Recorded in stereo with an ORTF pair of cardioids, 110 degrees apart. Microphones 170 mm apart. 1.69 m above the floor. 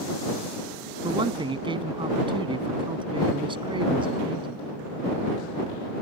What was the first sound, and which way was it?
A man speaking, 30° right.